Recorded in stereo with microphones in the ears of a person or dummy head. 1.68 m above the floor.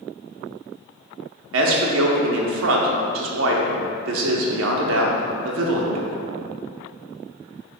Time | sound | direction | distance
1.5 | a man speaking | 75° right (ahead or behind) | 0.6 m